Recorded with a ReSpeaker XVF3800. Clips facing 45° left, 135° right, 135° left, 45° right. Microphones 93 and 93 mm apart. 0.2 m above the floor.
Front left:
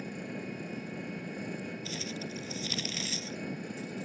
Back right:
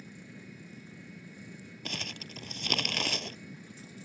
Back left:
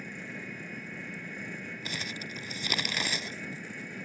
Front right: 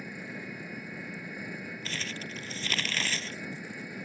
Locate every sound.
0.0 s an engine running: 35° left
1.9 s crumpling: 150° right